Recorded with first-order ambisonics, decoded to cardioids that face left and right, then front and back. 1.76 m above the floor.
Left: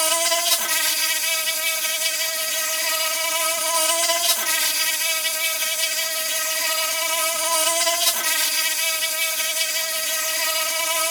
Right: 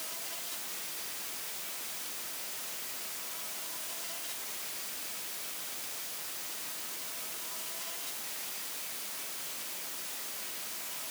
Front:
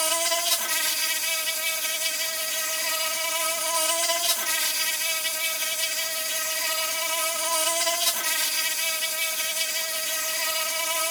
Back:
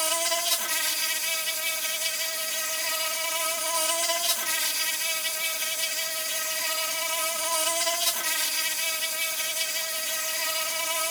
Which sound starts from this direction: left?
An insect, at 0.0 s.